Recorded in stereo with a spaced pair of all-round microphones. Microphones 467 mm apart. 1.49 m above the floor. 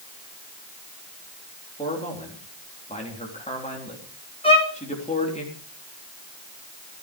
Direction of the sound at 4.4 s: 10° left (ahead or behind).